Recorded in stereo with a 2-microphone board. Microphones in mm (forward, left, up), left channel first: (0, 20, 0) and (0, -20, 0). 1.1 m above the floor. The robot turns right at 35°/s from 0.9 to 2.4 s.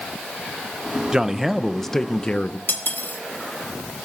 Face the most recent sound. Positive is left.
turn(degrees=60)  # may be behind; listen again after turning